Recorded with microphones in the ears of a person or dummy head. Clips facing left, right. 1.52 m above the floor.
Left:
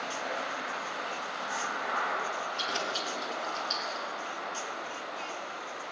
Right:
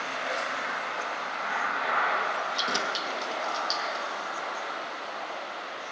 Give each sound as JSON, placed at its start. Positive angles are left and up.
{"t": 2.6, "sound": "keys jangling", "side_deg": -55, "distance_m": 1.3}